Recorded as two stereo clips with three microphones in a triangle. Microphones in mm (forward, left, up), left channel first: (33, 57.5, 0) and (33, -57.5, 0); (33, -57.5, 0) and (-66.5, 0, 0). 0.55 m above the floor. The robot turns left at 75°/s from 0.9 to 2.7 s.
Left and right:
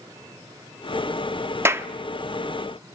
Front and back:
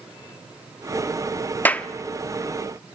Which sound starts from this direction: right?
A clap, at 1.6 s.